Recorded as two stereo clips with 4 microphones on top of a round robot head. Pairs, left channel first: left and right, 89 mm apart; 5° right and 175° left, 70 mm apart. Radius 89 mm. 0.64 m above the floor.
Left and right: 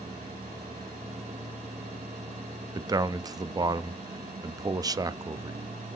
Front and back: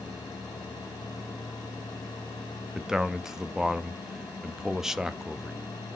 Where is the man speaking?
110° right, 0.6 m.